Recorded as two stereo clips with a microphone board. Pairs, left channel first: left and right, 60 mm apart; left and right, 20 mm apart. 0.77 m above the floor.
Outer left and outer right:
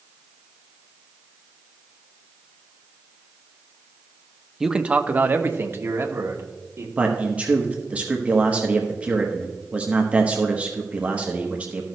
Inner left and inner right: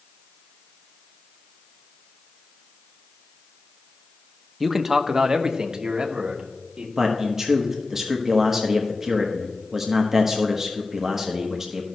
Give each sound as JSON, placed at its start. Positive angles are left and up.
{"t": 4.6, "sound": "a man speaking", "side_deg": -5, "distance_m": 0.6}
{"t": 7.0, "sound": "a man speaking", "side_deg": -25, "distance_m": 1.0}